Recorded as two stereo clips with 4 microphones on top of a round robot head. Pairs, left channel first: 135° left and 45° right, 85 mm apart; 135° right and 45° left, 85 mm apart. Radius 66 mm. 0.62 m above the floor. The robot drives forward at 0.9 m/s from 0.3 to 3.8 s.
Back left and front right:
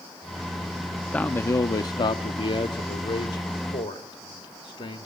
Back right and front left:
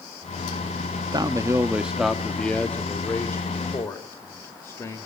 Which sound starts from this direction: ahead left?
A man speaking, at 1.1 s.